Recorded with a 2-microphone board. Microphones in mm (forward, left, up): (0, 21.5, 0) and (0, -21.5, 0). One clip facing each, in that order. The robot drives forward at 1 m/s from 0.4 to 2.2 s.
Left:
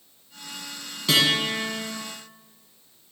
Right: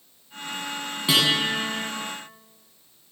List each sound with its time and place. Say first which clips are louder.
1.1 s a guitar: even; 15° right (ahead or behind), 2 m; by 1.9 s 25° right (ahead or behind), 1.4 m